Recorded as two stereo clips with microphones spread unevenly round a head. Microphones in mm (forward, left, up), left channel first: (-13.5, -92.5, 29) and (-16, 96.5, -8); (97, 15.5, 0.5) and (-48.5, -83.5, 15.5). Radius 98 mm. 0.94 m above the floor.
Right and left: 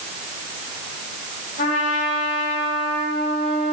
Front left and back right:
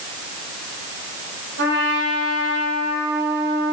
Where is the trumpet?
130° right, 3.5 m.